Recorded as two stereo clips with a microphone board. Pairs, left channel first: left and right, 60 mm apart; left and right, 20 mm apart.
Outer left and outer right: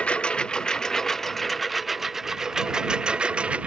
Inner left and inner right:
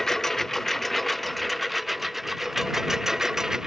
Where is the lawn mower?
20° left (ahead or behind); by 3.7 s 20° right (ahead or behind).